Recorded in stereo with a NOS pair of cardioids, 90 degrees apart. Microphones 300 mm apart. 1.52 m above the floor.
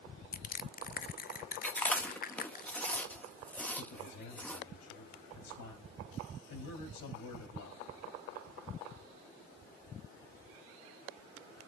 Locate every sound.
0.3 s crushing: 30° left, 0.6 m
1.6 s chewing: 5° left, 1.0 m
3.8 s a man speaking: 65° left, 4 m